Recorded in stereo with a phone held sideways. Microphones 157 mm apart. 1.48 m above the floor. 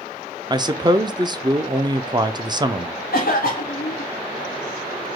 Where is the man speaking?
25° right (ahead or behind), 0.5 m.